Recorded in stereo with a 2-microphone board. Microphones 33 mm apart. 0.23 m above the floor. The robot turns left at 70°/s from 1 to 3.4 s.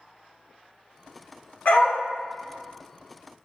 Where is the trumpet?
I don't hear a trumpet.